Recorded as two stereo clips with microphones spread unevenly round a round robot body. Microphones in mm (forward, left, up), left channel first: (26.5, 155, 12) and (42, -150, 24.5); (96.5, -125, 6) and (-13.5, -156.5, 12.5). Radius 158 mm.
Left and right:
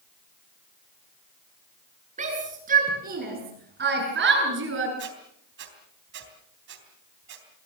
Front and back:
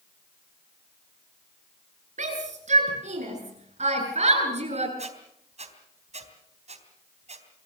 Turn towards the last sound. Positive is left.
turn(degrees=-145)